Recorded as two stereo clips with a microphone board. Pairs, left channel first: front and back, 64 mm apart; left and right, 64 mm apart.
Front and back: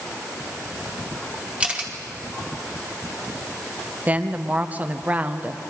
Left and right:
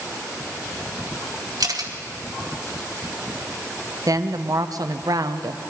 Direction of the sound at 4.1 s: 115° right.